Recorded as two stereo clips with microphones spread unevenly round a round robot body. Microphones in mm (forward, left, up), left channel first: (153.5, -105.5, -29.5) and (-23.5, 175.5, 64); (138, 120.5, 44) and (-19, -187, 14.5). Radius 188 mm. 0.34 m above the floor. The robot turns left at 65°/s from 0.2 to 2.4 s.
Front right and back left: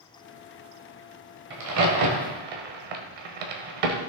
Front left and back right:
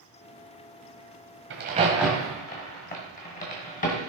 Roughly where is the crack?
Behind.